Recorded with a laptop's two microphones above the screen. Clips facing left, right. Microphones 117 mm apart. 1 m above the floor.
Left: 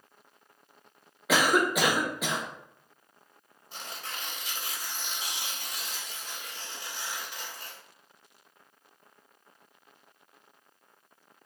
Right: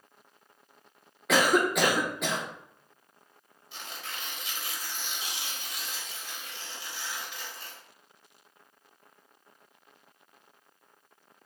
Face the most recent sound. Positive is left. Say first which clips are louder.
# left 1 dB
turn(degrees=45)  # may be behind; listen again after turning